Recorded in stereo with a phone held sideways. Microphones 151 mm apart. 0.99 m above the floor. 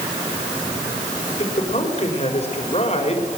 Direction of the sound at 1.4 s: 45° left (ahead or behind).